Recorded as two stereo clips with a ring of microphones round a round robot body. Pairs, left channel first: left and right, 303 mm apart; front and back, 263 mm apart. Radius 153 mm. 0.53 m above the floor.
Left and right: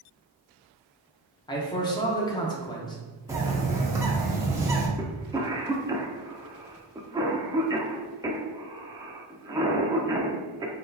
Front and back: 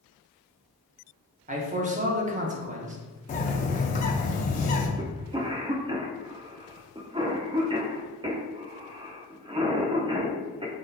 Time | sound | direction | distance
1.5 | a man speaking | 155° left | 0.9 m
3.3 | a bird | 20° right | 0.7 m
5.0 | a cough | 145° right | 0.6 m